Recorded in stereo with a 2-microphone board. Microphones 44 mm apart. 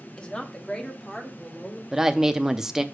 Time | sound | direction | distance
0.2 | a woman speaking | 25° left (ahead or behind) | 1.1 m
1.9 | a woman speaking | 10° right (ahead or behind) | 0.6 m